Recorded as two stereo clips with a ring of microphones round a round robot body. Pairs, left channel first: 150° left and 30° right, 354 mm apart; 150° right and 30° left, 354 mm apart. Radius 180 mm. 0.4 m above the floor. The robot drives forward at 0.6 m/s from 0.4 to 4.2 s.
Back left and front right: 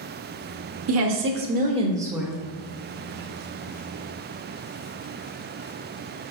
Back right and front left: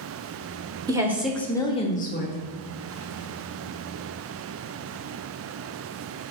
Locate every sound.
0.9 s a woman speaking: 45° right, 1.2 m; by 2.4 s 120° right, 1.1 m